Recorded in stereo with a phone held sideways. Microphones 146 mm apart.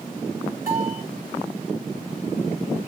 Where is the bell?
60° left (ahead or behind), 2.5 m.